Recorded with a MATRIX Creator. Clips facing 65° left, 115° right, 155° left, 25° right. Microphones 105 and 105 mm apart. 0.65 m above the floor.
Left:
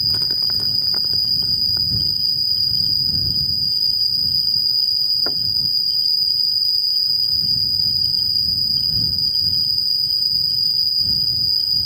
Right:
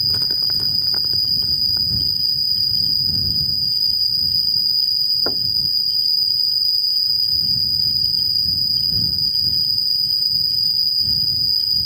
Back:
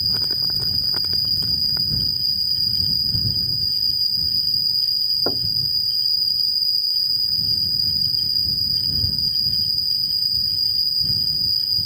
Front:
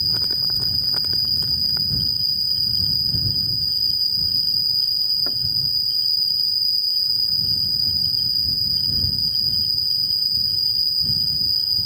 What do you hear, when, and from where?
0.0 s an insect: 155° left
5.3 s knocking: straight behind